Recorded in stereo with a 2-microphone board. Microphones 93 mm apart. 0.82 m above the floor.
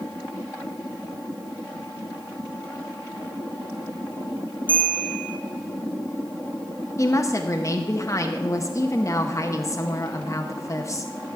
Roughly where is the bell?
Right.